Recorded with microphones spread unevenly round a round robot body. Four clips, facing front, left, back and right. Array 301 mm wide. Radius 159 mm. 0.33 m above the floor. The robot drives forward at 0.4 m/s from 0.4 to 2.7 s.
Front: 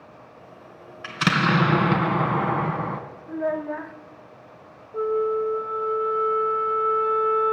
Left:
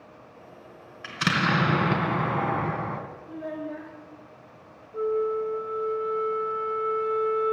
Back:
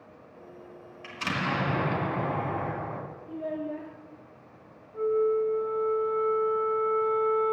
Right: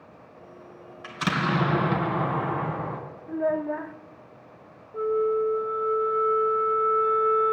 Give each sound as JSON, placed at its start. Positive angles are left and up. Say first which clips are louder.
{"t": 1.0, "sound": "an explosion", "louder": "left 1 dB, front 9 dB", "azimuth_deg": 15, "distance_m": 2.5}
{"t": 3.3, "sound": "a child speaking", "louder": "right 9 dB, front 7 dB", "azimuth_deg": -60, "distance_m": 0.7}
{"t": 4.9, "sound": "a flute", "louder": "right 2 dB, front 2 dB", "azimuth_deg": -5, "distance_m": 1.7}